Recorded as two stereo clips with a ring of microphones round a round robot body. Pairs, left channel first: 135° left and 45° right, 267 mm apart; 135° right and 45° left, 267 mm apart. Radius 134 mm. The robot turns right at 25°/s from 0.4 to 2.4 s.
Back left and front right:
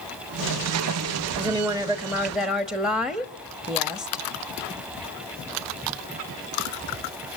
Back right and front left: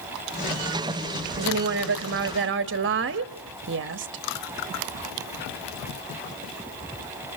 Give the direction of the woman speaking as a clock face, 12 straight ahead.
11 o'clock.